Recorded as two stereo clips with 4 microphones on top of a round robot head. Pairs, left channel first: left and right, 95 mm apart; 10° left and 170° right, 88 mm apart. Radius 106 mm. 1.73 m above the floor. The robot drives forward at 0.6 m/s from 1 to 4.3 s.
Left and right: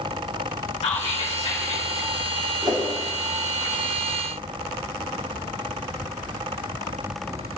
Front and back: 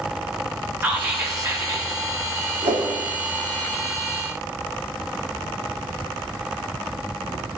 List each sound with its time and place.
0.8 s whispering: 125° left, 1.4 m; by 1.9 s 140° left, 1.7 m
2.6 s a whoosh: 155° right, 2.5 m